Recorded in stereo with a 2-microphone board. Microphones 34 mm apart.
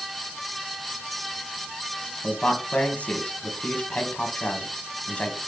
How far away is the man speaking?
About 1.9 m.